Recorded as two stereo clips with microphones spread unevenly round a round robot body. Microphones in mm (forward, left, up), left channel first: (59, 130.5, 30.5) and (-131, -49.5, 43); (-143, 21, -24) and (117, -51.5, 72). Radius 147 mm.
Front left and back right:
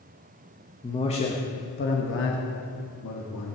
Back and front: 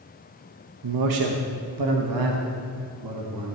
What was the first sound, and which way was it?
A man speaking, 30° right.